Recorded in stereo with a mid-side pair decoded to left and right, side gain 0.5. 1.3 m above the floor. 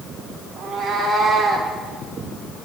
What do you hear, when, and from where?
0.6 s a cat meowing: 55° right, 2.5 m; by 1.7 s 10° right, 2.5 m